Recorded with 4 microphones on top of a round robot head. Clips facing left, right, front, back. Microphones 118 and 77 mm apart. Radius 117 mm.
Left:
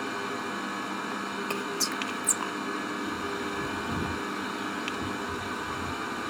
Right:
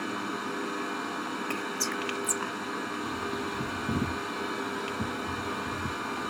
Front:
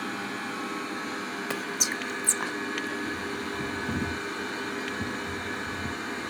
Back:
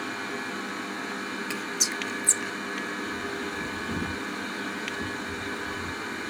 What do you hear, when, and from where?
1.5 s whispering: 30° left, 0.5 m
3.0 s a bird: 60° right, 1.5 m